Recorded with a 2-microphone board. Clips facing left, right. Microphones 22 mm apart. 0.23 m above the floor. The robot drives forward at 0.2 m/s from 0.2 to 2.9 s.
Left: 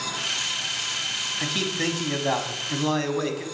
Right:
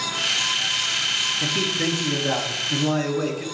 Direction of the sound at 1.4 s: 40° left (ahead or behind).